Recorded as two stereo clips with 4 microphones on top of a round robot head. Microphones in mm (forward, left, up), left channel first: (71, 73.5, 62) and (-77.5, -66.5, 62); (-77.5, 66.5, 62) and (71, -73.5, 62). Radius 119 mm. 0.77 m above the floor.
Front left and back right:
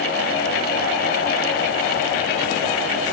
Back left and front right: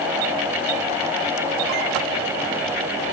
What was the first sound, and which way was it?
Only background noise.